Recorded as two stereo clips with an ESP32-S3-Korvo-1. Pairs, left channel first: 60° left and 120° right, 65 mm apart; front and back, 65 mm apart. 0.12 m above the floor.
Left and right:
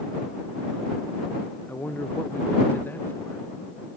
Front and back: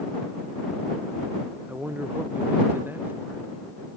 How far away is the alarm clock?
I don't hear an alarm clock.